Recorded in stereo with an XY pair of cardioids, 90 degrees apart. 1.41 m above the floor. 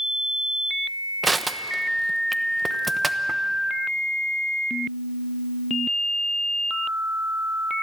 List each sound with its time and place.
1.2 s crushing: 20° right, 1.0 m